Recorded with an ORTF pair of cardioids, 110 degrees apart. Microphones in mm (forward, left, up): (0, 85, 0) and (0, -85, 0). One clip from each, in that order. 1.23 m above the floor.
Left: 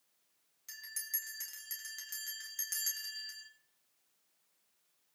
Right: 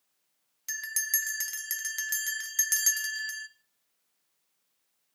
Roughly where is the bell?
Ahead right.